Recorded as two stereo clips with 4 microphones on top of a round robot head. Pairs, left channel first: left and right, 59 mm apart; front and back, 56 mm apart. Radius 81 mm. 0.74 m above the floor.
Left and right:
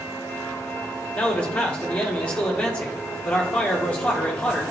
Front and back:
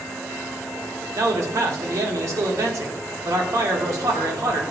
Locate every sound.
1.1 s a man speaking: 160° left, 1.7 m